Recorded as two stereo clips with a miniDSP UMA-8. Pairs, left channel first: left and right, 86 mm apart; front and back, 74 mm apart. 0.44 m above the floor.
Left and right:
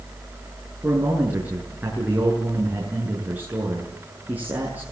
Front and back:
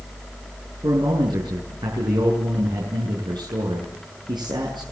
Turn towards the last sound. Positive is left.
turn(degrees=-160)